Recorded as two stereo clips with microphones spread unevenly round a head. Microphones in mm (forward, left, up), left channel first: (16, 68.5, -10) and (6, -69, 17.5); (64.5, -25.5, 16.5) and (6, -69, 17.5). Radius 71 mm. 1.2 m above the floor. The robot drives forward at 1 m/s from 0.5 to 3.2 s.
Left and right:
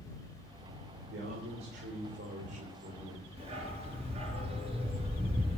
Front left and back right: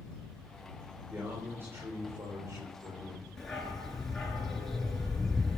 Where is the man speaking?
80° right, 4 m; by 3.3 s 110° right, 4 m.